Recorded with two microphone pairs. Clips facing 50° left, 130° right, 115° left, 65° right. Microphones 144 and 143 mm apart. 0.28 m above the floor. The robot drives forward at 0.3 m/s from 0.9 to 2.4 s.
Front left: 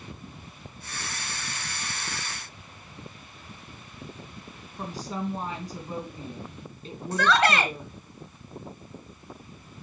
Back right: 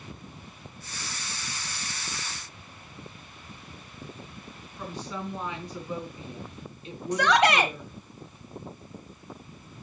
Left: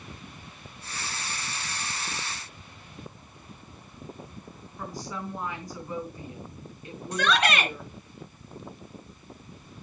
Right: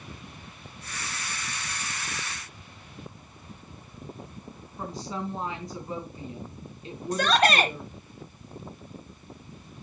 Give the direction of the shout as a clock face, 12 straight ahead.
2 o'clock.